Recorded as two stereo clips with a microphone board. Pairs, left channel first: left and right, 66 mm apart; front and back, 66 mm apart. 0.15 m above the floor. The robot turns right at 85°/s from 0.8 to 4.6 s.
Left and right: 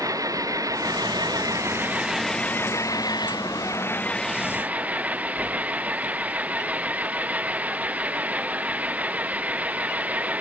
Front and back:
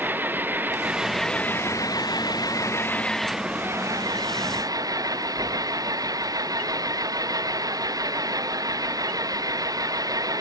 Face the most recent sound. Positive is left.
turn(degrees=-155)